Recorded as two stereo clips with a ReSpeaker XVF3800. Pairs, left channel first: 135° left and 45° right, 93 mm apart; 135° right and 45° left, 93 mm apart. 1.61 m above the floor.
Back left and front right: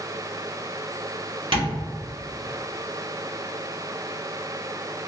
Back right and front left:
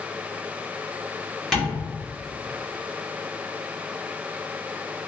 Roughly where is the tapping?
Ahead right.